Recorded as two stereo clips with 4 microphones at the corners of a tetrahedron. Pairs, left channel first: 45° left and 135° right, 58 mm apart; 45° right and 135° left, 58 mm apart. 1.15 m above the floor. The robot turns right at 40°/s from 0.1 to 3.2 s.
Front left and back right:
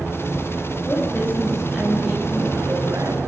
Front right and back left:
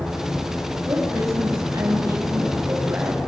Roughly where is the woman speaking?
Left.